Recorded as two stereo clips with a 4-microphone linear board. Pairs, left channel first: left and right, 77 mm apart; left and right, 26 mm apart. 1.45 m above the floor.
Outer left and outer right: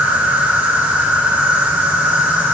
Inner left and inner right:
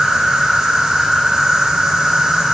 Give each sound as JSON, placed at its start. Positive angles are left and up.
{"t": 0.0, "sound": "an insect", "side_deg": -25, "distance_m": 2.5}